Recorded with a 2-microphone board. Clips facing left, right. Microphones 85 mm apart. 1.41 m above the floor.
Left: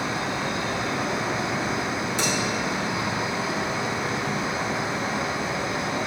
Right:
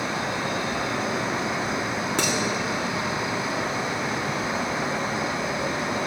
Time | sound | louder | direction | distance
0.0 | an insect | even | 40° right (ahead or behind) | 3.5 m
2.2 | dishes clattering | right 2 dB | 65° right (ahead or behind) | 1.7 m